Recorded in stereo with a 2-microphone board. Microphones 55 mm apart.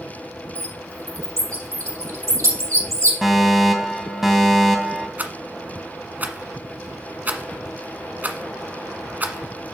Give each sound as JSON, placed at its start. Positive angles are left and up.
{"t": 0.6, "sound": "a bird", "side_deg": -70, "distance_m": 4.0}
{"t": 3.2, "sound": "a fire alarm", "side_deg": -5, "distance_m": 2.0}
{"t": 5.2, "sound": "a rattle", "side_deg": -35, "distance_m": 1.2}